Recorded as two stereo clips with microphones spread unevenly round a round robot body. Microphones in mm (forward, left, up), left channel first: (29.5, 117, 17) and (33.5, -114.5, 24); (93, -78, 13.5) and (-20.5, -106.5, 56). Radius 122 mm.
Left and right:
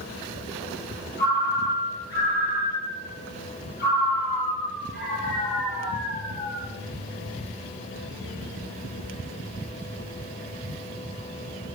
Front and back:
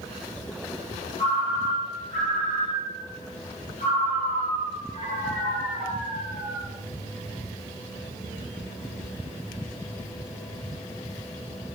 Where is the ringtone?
45° left, 5.5 m.